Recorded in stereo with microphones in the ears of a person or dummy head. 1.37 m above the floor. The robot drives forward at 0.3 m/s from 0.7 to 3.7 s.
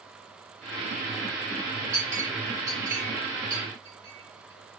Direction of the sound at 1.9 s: 20° right (ahead or behind).